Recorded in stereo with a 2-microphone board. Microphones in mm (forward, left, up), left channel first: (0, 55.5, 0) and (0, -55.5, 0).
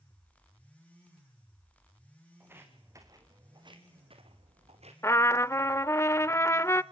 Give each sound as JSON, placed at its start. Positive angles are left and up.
{"t": 2.4, "sound": "footsteps", "side_deg": -20, "distance_m": 3.5}
{"t": 5.0, "sound": "a trumpet", "side_deg": 25, "distance_m": 0.5}